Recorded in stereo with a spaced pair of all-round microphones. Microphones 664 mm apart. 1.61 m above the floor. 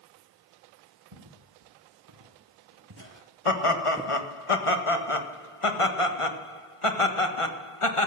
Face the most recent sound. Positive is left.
turn(degrees=50)  # may be behind; listen again after turning